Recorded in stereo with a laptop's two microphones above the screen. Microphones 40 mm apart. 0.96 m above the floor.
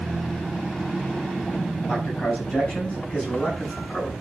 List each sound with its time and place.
1.9 s a man speaking: 35° left (ahead or behind), 6 m